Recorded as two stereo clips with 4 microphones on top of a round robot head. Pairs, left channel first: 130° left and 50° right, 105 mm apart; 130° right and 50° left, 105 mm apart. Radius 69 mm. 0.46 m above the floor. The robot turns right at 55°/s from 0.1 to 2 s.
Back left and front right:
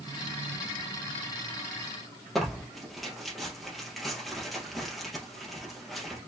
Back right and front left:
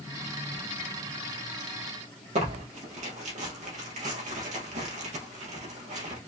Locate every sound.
2.4 s tearing paper: 40° left, 3 m